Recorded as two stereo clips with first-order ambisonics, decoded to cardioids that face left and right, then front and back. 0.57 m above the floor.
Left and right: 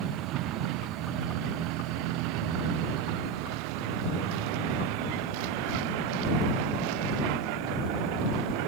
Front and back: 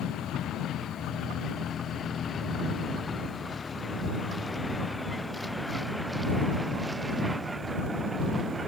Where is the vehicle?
50° right; by 8.7 s 105° right.